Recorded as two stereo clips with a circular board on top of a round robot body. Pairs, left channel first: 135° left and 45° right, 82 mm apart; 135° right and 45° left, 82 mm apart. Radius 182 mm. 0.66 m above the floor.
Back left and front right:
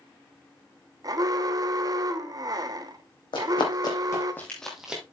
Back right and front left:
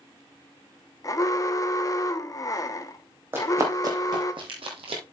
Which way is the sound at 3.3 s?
105° left.